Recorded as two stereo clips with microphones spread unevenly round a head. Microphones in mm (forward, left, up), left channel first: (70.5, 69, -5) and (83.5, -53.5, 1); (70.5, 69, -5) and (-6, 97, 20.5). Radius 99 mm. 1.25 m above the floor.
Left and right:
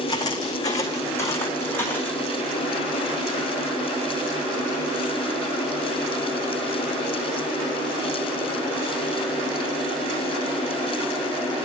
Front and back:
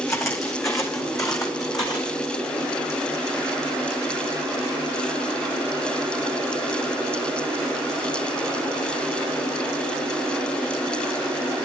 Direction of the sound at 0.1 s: 40° left.